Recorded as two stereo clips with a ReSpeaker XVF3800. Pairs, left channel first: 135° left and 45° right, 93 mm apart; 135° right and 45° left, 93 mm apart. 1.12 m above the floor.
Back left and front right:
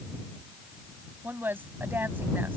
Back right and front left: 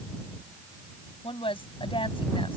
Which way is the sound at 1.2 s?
115° right.